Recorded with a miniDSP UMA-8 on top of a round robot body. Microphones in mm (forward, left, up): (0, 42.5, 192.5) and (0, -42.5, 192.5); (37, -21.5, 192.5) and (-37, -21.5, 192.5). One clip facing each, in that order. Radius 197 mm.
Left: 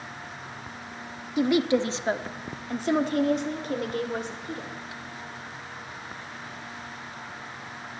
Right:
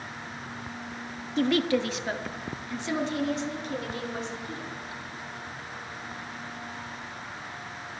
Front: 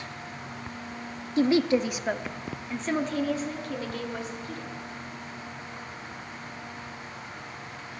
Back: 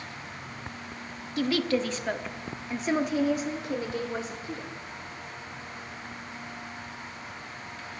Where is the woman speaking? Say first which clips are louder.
Left 2 dB, front 4 dB; 20° left, 1.1 m; by 4.7 s 120° left, 2 m.